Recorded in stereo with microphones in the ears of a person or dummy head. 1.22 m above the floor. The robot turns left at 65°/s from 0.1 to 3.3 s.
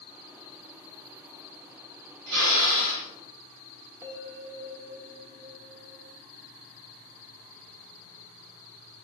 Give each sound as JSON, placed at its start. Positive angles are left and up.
{"t": 2.3, "sound": "a drill", "azimuth_deg": -65, "distance_m": 4.5}
{"t": 4.0, "sound": "a bell", "side_deg": -10, "distance_m": 1.4}